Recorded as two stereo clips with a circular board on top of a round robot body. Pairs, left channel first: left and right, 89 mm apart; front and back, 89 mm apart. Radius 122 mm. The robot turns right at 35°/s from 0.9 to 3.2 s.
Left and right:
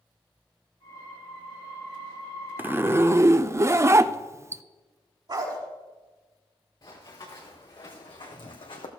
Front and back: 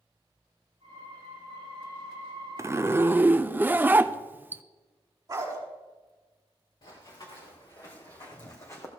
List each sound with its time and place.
2.6 s a zipper: 145° right, 0.6 m; by 4.6 s 125° right, 0.6 m
5.3 s a dog barking: 125° right, 5 m
6.8 s running footsteps: 45° left, 3.5 m; by 8.9 s 65° left, 1.6 m